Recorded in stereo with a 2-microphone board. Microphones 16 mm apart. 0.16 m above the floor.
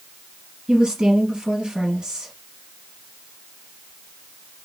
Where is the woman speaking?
60° right (ahead or behind), 3 m.